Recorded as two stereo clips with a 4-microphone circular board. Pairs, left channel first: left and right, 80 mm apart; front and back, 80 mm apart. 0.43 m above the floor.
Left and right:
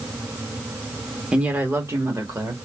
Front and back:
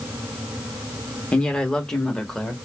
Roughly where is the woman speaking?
Ahead right.